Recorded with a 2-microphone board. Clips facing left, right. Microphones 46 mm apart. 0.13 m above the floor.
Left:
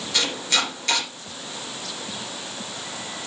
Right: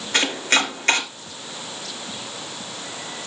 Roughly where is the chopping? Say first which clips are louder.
Right 4 dB; right.